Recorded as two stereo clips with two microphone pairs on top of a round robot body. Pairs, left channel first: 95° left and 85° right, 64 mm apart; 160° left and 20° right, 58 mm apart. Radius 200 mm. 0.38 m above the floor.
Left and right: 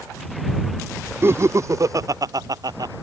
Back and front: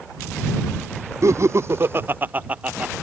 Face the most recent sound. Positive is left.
turn(degrees=-90)